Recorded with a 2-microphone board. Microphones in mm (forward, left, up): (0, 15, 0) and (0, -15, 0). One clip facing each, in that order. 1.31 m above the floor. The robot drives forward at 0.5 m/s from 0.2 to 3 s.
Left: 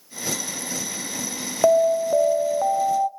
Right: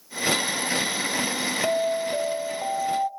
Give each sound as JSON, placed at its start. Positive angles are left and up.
{"t": 1.6, "sound": "an alarm", "side_deg": 55, "distance_m": 0.7}